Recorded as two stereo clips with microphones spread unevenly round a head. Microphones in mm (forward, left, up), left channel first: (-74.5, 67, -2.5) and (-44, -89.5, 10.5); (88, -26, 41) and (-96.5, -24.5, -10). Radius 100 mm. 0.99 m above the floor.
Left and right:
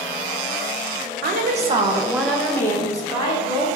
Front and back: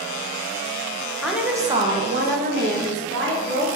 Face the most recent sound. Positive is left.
turn(degrees=160)